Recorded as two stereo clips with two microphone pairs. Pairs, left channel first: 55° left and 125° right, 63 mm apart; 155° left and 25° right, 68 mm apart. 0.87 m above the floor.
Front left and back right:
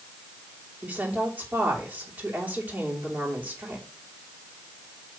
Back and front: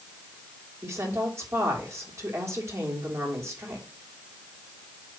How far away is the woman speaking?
About 3 m.